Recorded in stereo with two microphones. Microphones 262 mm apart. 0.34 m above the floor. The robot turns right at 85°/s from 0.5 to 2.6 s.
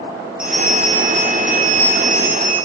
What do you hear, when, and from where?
0.4 s a bell: 5° right, 3 m; by 2.6 s 170° left, 3 m